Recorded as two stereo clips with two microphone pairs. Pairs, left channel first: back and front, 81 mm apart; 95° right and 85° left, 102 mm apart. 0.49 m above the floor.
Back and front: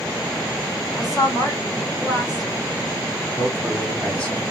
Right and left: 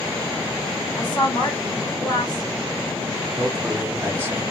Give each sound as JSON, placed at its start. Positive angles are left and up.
{"t": 1.0, "sound": "a woman speaking", "azimuth_deg": -140, "distance_m": 2.0}
{"t": 3.4, "sound": "a man speaking", "azimuth_deg": 125, "distance_m": 1.4}